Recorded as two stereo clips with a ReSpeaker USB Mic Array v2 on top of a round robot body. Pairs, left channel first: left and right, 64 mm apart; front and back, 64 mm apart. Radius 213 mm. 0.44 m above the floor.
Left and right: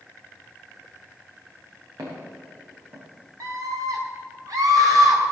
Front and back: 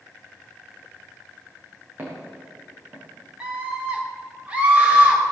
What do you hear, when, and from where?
2.0 s footsteps: 115° right, 6 m; by 3.1 s 110° right, 4.5 m
3.4 s a scream: 110° right, 4 m